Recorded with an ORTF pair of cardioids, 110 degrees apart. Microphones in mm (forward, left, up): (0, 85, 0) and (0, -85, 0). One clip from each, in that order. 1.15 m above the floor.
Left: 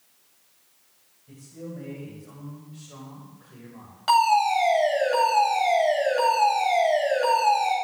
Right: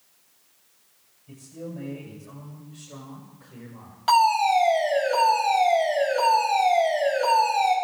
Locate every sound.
1.3 s a man speaking: 5° right, 7 m; by 4.0 s straight ahead, 5.5 m
4.1 s a fire alarm: 10° left, 9.5 m